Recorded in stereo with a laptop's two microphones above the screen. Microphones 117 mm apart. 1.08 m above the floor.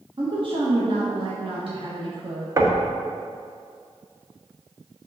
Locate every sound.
0.2 s a woman speaking: 50° right (ahead or behind), 1.4 m
2.6 s knocking: 30° right (ahead or behind), 1.1 m